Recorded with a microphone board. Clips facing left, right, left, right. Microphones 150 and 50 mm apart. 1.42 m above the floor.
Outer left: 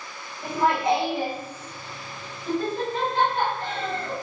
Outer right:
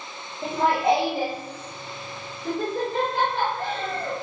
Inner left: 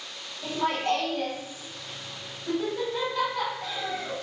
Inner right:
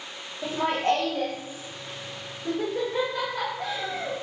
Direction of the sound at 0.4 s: 65° right (ahead or behind).